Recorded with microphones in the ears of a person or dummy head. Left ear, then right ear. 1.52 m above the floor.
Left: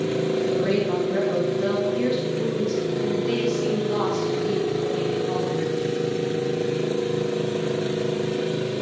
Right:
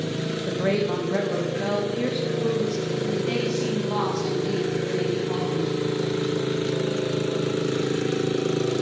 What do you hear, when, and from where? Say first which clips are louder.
0.5 s a woman speaking: left 2 dB; 35° right (ahead or behind), 1.5 m; by 5.7 s 10° right (ahead or behind), 4 m